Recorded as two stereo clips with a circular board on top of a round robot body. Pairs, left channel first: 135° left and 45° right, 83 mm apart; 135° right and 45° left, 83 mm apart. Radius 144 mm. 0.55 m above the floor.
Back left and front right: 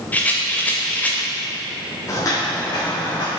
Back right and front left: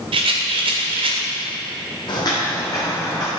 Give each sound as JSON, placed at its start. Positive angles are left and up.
{"t": 0.1, "sound": "a rattle", "azimuth_deg": 60, "distance_m": 0.5}
{"t": 2.1, "sound": "footsteps", "azimuth_deg": -170, "distance_m": 1.3}